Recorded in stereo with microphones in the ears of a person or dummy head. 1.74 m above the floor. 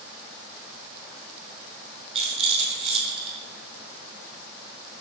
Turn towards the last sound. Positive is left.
turn(degrees=-35)  # may be behind; listen again after turning